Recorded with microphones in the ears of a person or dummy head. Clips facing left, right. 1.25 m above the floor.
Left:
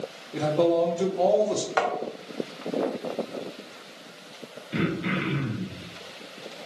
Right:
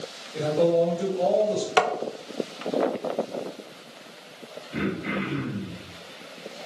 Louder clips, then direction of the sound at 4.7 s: Left 1 dB; 55° left (ahead or behind).